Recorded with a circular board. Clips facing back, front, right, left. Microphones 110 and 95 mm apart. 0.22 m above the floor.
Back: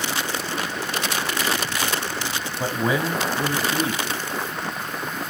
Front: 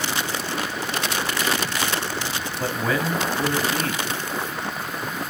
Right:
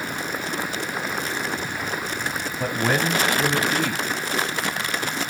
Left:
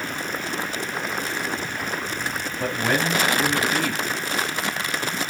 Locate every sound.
2.6 s a man speaking: 155° right, 1.1 m